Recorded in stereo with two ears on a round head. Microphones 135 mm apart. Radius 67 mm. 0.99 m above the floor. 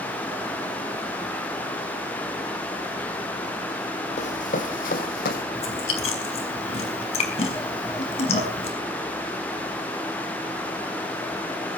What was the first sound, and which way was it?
Running footsteps, 55° left (ahead or behind).